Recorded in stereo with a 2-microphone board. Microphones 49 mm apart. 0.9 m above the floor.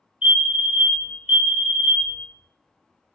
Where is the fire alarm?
20° right (ahead or behind), 1.3 m.